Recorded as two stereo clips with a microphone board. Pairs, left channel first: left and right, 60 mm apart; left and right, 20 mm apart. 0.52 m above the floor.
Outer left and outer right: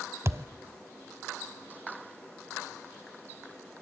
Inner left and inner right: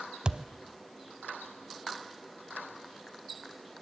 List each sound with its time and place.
0.2 s a thud: 45° right (ahead or behind), 0.9 m